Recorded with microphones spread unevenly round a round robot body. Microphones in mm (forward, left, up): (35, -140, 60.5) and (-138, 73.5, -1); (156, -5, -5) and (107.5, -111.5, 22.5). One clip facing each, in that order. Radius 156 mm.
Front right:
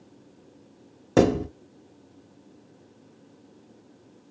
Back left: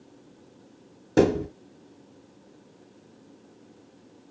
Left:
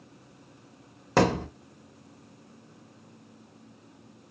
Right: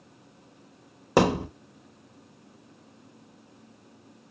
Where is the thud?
40° right, 1.6 m.